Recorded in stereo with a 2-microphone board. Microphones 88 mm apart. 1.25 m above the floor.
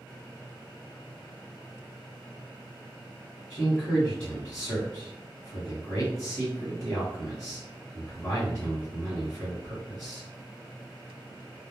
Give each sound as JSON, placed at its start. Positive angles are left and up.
{"t": 3.5, "sound": "a man speaking", "side_deg": 10, "distance_m": 1.3}